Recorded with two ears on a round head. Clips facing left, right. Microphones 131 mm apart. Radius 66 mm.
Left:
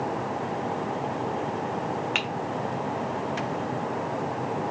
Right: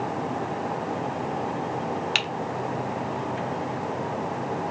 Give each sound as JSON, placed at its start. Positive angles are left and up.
{"t": 2.1, "sound": "typing on a keyboard", "side_deg": -40, "distance_m": 0.8}